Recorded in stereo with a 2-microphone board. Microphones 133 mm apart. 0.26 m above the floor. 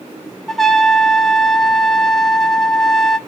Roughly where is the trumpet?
Centre.